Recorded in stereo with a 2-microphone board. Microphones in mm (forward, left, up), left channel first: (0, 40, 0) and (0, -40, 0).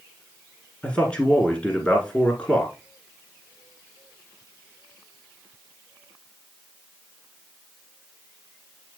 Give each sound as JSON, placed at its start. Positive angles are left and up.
{"t": 0.8, "sound": "a man speaking", "side_deg": 15, "distance_m": 1.4}